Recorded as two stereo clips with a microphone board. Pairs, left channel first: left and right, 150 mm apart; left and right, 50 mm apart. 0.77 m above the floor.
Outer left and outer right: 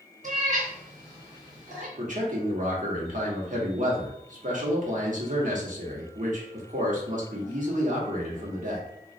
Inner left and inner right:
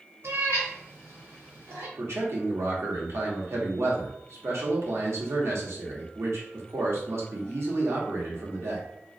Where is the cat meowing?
60° right (ahead or behind), 1.5 m.